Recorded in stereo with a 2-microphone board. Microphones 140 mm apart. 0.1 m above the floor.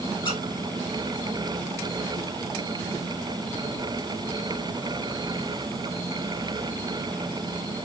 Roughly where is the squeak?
Left.